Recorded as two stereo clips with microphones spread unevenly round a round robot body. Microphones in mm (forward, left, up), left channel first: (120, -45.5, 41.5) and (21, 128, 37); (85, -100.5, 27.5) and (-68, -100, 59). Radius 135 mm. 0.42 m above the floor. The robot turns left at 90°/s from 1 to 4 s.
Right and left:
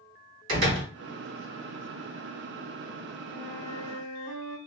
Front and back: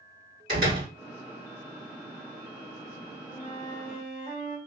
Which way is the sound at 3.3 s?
25° right.